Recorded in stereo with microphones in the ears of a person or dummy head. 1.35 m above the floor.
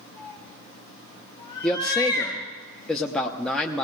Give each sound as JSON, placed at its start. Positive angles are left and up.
{"t": 0.2, "sound": "a cat meowing", "side_deg": 20, "distance_m": 5.0}
{"t": 1.6, "sound": "a man speaking", "side_deg": 5, "distance_m": 0.9}